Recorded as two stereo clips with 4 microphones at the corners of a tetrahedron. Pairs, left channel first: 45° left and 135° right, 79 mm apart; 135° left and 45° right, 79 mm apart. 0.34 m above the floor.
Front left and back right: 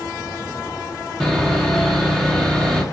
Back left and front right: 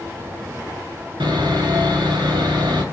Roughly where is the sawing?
Ahead right.